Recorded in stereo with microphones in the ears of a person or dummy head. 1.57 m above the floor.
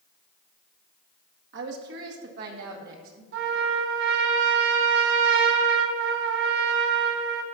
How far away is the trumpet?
About 1.7 m.